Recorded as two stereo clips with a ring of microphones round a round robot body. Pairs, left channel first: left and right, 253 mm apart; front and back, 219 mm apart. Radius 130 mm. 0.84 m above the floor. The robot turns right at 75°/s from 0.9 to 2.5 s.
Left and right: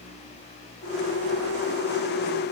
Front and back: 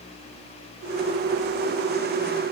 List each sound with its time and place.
Only background noise.